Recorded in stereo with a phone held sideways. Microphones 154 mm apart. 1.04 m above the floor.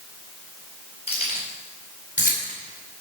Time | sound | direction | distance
1.1 | keys jangling | 45° left (ahead or behind) | 4.5 m